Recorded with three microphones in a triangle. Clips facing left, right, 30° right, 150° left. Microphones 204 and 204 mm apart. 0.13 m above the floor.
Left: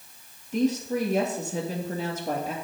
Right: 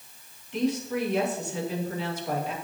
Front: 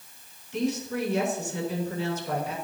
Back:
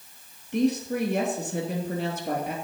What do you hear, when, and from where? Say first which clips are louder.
0.5 s a woman speaking: left 2 dB, back 4 dB; 130° left, 3 m